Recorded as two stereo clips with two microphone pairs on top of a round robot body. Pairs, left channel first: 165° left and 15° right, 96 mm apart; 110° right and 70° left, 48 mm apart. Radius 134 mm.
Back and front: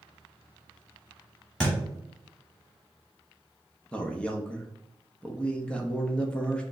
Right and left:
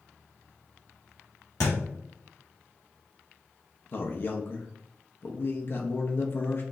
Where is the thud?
115° right, 1.3 m.